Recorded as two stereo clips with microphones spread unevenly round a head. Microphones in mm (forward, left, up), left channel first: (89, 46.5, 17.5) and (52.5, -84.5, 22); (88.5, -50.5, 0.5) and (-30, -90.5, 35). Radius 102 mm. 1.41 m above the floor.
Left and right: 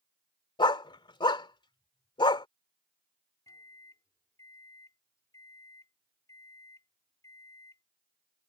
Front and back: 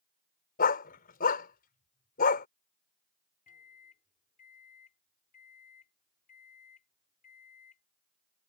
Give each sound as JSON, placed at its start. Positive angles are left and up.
{"t": 0.6, "sound": "a dog barking", "azimuth_deg": 20}
{"t": 3.5, "sound": "a microwave", "azimuth_deg": 10}